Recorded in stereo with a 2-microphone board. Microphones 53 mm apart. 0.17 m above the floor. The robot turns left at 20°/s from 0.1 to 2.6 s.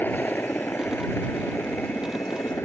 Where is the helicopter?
40° left (ahead or behind); by 2.7 s 55° left (ahead or behind).